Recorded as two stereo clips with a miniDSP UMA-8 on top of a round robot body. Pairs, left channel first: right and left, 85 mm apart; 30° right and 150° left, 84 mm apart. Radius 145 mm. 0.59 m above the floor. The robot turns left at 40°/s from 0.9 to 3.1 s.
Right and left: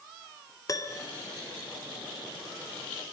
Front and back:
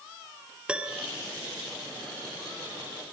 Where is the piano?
135° right, 2 m; by 1.1 s 140° right, 2 m.